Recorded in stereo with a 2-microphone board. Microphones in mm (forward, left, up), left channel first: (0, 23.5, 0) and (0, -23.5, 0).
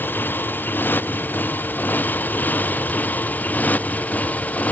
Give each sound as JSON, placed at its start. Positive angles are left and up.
{"t": 0.0, "sound": "a motorcycle", "side_deg": 45}